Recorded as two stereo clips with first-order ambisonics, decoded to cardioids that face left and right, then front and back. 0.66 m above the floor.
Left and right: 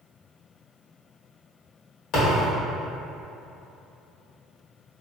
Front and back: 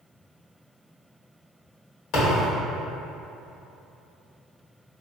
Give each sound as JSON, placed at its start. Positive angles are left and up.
{"t": 2.1, "sound": "a thud", "azimuth_deg": 45, "distance_m": 1.2}